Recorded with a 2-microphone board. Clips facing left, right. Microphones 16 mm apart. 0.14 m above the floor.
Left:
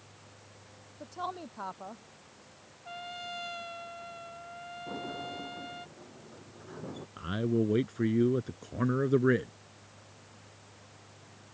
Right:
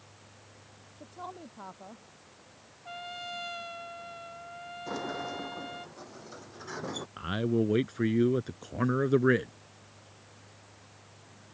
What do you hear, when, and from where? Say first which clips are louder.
1.0 s a woman speaking: left 5 dB; 40° left (ahead or behind)
2.9 s a trumpet: right 1 dB; 5° right (ahead or behind)
4.9 s a sliding door: right 4 dB; 80° right
7.2 s a man speaking: right 1 dB; 20° right (ahead or behind)